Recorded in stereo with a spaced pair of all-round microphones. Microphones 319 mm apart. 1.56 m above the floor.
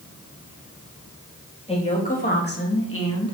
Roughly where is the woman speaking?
Centre.